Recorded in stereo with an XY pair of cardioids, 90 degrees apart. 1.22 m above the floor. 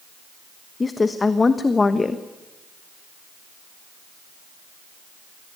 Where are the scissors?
No scissors in this recording.